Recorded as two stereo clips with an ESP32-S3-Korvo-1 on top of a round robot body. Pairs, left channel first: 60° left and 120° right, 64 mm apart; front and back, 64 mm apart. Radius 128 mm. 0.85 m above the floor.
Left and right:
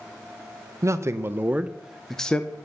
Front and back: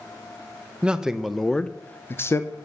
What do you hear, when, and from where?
0.8 s a man speaking: 110° right, 1.1 m; by 2.5 s straight ahead, 1.0 m